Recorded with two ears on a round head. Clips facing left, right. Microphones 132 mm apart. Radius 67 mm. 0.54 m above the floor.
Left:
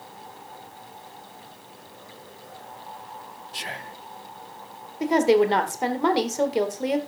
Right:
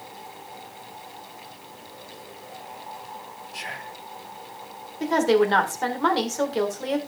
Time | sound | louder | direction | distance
3.5 | whispering | left 1 dB | 35° left (ahead or behind) | 0.7 m
5.0 | a woman speaking | left 1 dB | 15° left (ahead or behind) | 1.8 m